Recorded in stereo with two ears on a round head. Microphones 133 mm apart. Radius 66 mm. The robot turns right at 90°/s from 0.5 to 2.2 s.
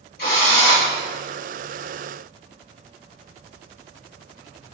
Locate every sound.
0.2 s a drill: 70° left, 2.5 m; by 0.9 s 105° left, 2.5 m